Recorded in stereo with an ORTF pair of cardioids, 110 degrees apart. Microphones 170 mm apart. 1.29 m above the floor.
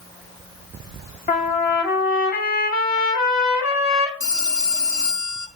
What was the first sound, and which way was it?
A trumpet, 60° left.